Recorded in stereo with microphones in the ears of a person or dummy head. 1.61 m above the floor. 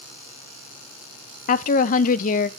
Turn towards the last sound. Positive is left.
turn(degrees=50)  # may be behind; listen again after turning